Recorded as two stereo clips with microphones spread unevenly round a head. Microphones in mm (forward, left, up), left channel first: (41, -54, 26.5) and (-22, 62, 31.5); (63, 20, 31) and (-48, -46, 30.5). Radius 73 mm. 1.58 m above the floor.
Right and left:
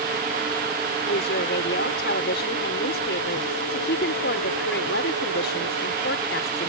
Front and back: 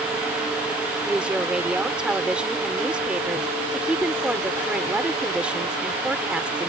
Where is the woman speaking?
65° right.